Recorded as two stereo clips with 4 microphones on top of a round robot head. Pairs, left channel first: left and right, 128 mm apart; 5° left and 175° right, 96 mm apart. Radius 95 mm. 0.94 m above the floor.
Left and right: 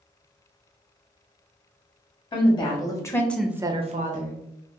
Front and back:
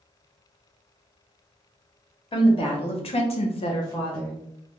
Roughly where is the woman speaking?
Ahead left.